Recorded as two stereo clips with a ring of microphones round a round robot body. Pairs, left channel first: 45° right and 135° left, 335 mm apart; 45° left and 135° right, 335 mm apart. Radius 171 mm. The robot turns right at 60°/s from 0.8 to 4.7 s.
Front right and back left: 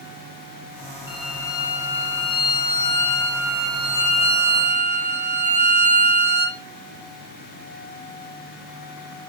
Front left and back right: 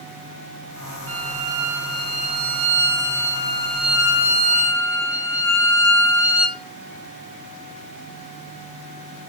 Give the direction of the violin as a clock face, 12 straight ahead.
3 o'clock.